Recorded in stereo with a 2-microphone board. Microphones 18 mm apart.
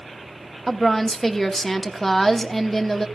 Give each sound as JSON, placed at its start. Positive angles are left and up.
{"t": 0.7, "sound": "a woman speaking", "side_deg": 5, "distance_m": 0.9}